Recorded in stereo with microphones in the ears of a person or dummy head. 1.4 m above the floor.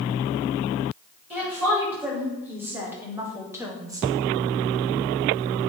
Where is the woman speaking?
15° right (ahead or behind), 2.5 m; by 4.1 s 20° right (ahead or behind), 0.8 m.